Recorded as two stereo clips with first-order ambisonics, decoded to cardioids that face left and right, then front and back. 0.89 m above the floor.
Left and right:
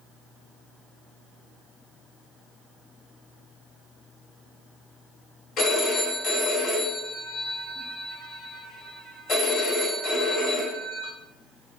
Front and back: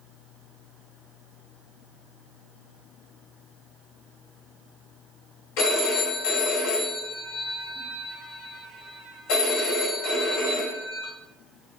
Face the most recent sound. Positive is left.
turn(degrees=25)